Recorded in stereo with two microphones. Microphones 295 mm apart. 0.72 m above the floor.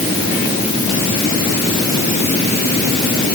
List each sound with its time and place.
Only background noise.